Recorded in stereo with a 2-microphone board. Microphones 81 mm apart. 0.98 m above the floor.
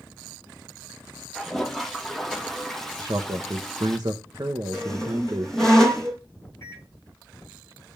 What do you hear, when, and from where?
1.4 s a toilet flushing: 5° left (ahead or behind), 1.3 m
3.0 s a man speaking: 50° right (ahead or behind), 0.9 m
4.7 s a squeak: 5° left (ahead or behind), 2 m
6.6 s a microwave: 35° left (ahead or behind), 6 m